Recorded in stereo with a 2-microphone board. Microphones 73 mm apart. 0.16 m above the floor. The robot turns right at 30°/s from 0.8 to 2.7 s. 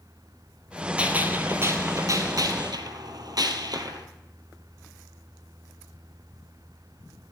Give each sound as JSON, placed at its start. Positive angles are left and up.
{"t": 1.0, "sound": "a gunshot", "azimuth_deg": -160, "distance_m": 1.5}